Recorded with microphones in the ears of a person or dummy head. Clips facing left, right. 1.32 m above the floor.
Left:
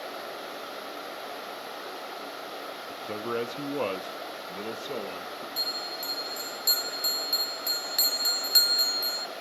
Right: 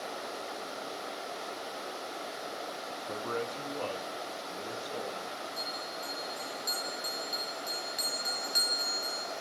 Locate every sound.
2.9 s a man speaking: 20° left (ahead or behind), 0.9 m; by 5.5 s 65° left (ahead or behind), 2.5 m
5.6 s a bell: 60° left (ahead or behind), 0.8 m